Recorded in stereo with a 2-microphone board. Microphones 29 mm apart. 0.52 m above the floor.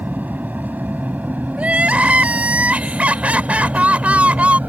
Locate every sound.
0.0 s an aircraft: 70° right (ahead or behind); by 4.7 s 60° right (ahead or behind)
1.6 s crying: 50° right (ahead or behind)